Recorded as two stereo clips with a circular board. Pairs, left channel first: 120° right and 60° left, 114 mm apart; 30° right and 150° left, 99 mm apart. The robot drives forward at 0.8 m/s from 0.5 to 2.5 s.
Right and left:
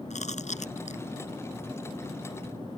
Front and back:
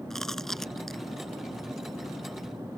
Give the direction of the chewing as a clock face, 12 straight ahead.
4 o'clock.